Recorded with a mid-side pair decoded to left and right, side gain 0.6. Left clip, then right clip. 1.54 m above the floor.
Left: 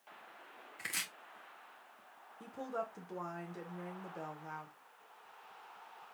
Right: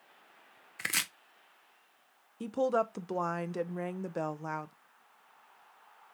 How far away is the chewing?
I don't hear chewing.